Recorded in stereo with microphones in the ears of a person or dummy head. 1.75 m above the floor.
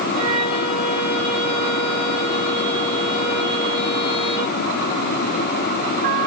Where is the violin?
30° left (ahead or behind), 8 m.